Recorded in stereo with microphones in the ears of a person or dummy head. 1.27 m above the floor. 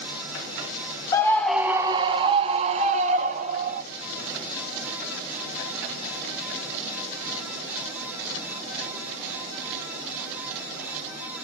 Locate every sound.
1.1 s a scream: 20° left (ahead or behind), 0.6 m; by 3.8 s 50° right (ahead or behind), 1.7 m